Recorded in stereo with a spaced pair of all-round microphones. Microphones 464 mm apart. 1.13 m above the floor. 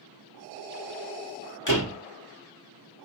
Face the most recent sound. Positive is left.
turn(degrees=40)  # may be behind; listen again after turning